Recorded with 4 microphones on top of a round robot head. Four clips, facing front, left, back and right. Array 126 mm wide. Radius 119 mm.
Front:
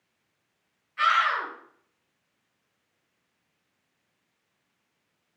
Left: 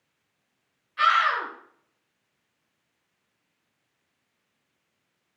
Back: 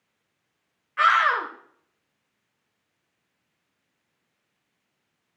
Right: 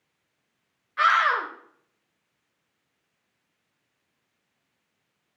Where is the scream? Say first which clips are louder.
Right 1 dB, back 4 dB; 145° right, 2 m.